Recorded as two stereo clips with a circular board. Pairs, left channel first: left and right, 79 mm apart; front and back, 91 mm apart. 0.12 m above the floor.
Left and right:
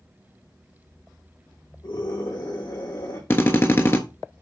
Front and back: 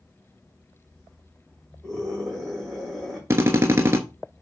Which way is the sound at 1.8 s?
85° left.